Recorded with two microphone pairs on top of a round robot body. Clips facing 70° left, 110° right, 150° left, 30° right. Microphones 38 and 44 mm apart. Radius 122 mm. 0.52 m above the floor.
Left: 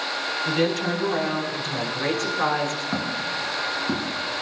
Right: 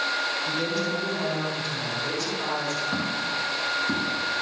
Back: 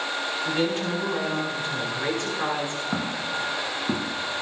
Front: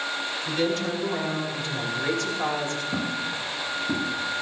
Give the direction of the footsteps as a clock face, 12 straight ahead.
7 o'clock.